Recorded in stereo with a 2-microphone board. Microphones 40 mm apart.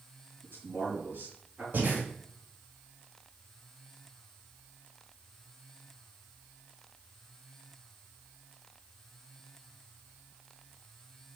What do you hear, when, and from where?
0.4 s a man speaking: 55° right (ahead or behind), 4 m
1.7 s breathing: 50° right (ahead or behind), 2.5 m